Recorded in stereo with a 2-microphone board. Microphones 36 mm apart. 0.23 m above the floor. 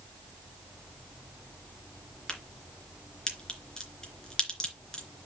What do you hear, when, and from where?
2.3 s a crack: 20° left (ahead or behind), 3 m